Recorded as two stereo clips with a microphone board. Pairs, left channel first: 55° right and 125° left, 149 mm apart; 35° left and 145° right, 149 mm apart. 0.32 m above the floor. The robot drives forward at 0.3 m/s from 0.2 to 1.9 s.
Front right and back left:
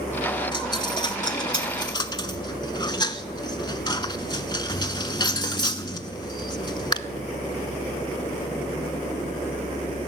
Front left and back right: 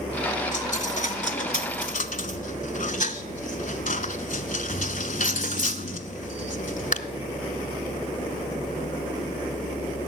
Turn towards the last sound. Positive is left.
turn(degrees=5)